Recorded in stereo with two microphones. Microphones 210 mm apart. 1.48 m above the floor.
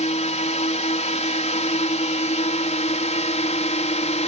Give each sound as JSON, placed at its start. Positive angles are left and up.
{"t": 0.0, "sound": "a drone", "side_deg": 30}